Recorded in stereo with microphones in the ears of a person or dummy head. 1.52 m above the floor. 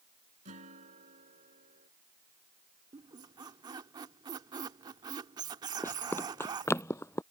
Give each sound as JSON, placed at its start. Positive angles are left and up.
{"t": 0.5, "sound": "a guitar", "side_deg": -40}
{"t": 2.9, "sound": "a squeak", "side_deg": -25}
{"t": 5.8, "sound": "running footsteps", "side_deg": 10}